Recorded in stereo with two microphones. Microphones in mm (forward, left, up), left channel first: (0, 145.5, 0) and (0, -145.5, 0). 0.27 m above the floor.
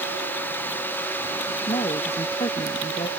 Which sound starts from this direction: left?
A woman speaking, at 1.7 s.